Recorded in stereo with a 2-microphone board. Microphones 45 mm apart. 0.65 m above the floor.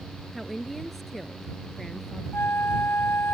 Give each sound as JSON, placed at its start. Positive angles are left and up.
{"t": 0.3, "sound": "a woman speaking", "side_deg": 0}
{"t": 2.3, "sound": "a flute", "side_deg": 85}